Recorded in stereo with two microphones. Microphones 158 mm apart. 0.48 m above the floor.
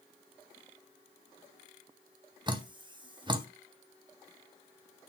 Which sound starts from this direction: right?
Dripping, at 2.5 s.